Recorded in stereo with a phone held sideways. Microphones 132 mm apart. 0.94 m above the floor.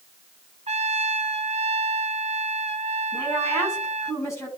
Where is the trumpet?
55° right (ahead or behind), 0.9 m.